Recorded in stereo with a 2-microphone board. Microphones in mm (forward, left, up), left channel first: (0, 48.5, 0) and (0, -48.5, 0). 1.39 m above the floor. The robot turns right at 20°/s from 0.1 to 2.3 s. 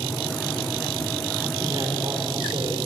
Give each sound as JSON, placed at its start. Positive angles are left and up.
{"t": 1.6, "sound": "a man speaking", "side_deg": -40, "distance_m": 4.0}